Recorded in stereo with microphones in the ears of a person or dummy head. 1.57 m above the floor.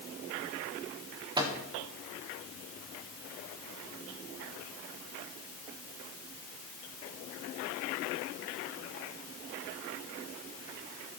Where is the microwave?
25° right (ahead or behind), 1.0 m.